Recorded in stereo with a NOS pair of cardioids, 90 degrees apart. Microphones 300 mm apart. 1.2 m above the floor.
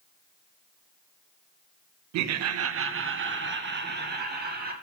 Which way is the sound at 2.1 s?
70° right.